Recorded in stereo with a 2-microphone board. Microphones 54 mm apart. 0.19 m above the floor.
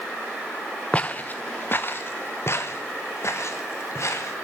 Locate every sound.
0.9 s footsteps: 20° left (ahead or behind), 0.9 m; by 4.3 s 60° left (ahead or behind), 2.5 m